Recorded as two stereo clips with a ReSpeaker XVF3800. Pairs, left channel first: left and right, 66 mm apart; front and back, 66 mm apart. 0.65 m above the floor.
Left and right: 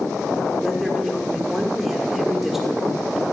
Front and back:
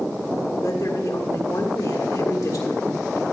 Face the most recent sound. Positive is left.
turn(degrees=-5)